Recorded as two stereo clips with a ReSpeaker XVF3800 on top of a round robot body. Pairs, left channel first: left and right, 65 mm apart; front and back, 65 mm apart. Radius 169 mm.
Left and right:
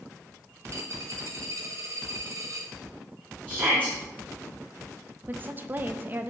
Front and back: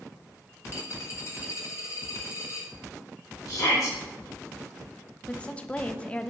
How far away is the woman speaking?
About 0.8 m.